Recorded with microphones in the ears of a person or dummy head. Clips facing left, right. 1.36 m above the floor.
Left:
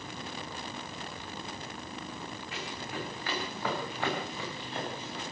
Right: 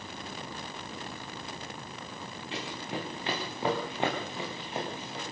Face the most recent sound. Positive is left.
turn(degrees=-15)  # may be behind; listen again after turning